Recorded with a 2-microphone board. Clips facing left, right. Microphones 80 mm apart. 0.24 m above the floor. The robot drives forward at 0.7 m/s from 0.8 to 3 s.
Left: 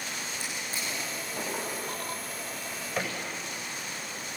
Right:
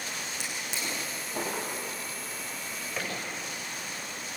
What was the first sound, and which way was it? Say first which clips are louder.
A drawer: even; 75° right (ahead or behind).